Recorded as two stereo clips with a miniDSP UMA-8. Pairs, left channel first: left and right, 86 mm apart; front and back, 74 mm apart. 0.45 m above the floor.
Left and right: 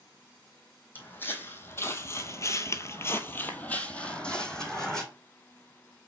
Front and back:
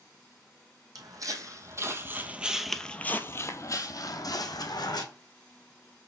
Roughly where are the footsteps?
Behind left.